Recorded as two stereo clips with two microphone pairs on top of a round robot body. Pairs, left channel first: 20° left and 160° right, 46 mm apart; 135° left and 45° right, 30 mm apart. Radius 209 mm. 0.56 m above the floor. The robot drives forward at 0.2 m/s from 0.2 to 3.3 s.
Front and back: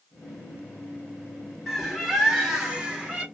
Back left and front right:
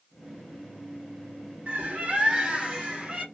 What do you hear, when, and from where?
1.7 s a bird: 75° right, 1.4 m; by 3.2 s 95° right, 1.4 m